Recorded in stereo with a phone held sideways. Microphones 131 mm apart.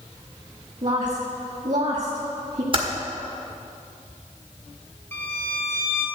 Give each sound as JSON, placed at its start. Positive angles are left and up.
{"t": 0.8, "sound": "a woman speaking", "side_deg": -60, "distance_m": 1.7}
{"t": 2.7, "sound": "typing on a keyboard", "side_deg": -40, "distance_m": 1.7}
{"t": 5.1, "sound": "a violin", "side_deg": 20, "distance_m": 3.0}